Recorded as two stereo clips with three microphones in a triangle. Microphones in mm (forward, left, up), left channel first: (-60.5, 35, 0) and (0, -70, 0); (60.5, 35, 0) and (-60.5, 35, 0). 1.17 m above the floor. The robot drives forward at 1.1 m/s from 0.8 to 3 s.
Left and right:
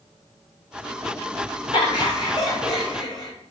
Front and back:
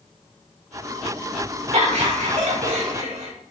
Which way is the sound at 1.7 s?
165° left.